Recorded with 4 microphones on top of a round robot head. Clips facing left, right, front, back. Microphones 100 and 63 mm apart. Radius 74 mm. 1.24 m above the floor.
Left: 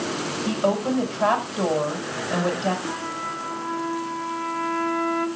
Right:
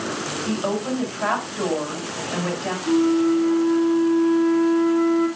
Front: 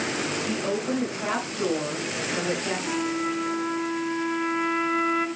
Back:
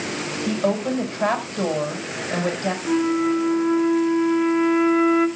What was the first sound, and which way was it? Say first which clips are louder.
A woman speaking: left 2 dB, back 8 dB; 150° left.